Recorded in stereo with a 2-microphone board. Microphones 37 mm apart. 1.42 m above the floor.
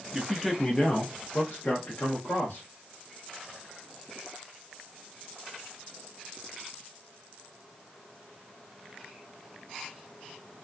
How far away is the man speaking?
About 0.5 m.